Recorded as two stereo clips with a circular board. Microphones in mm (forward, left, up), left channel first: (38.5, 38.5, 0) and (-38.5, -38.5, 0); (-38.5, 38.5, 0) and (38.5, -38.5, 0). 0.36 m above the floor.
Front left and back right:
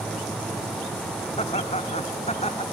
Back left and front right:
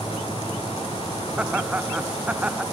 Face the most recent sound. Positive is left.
turn(degrees=35)